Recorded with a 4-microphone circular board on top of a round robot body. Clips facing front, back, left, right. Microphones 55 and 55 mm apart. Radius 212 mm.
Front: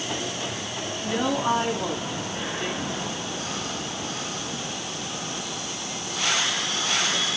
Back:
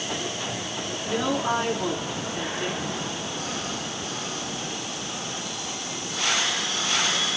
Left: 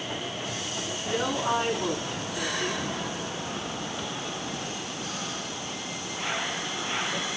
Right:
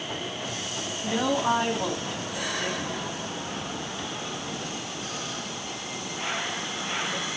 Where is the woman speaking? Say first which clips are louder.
Front 1 dB, right 3 dB; 55° right, 7 m.